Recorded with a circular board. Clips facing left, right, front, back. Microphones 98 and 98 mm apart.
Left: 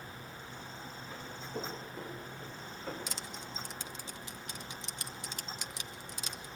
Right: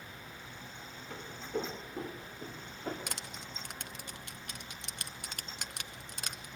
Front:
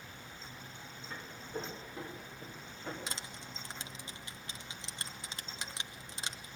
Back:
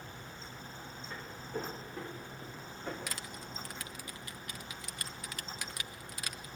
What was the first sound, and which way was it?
Footsteps, 90° right.